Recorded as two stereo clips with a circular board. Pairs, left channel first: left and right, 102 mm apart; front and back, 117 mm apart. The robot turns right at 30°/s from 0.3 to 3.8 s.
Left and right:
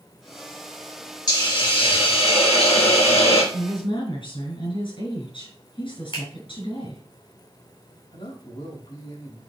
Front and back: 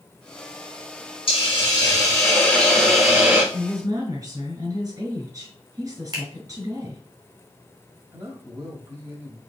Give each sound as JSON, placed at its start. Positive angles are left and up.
{"t": 1.3, "sound": "a hiss", "azimuth_deg": 40, "distance_m": 4.0}
{"t": 3.5, "sound": "a woman speaking", "azimuth_deg": 110, "distance_m": 5.0}
{"t": 6.1, "sound": "a finger snap", "azimuth_deg": 125, "distance_m": 3.0}
{"t": 8.1, "sound": "a man speaking", "azimuth_deg": 110, "distance_m": 3.0}